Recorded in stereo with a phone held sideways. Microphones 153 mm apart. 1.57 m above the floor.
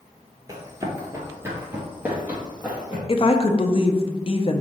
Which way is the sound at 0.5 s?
20° right (ahead or behind).